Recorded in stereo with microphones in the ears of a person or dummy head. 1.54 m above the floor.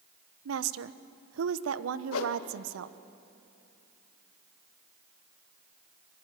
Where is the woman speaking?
85° right, 1.1 m.